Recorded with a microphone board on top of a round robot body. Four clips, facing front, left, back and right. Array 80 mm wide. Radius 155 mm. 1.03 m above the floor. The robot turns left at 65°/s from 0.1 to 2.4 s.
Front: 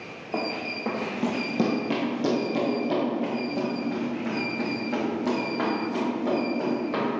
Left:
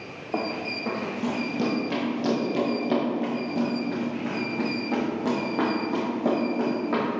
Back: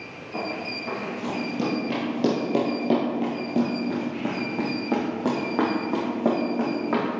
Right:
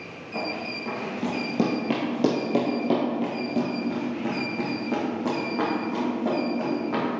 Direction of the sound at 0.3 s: 50° left.